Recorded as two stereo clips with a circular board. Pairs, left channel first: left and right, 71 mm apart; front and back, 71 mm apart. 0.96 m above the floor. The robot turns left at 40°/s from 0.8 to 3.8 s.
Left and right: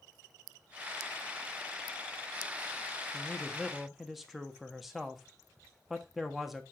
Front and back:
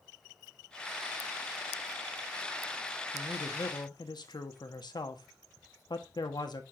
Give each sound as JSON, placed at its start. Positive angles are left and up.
{"t": 3.1, "sound": "a man speaking", "azimuth_deg": 25, "distance_m": 1.3}